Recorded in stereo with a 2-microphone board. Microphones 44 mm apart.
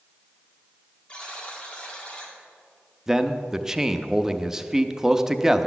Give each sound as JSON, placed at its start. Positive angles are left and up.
{"t": 1.1, "sound": "a buzzer", "side_deg": 25, "distance_m": 2.0}
{"t": 3.1, "sound": "a man speaking", "side_deg": -10, "distance_m": 0.5}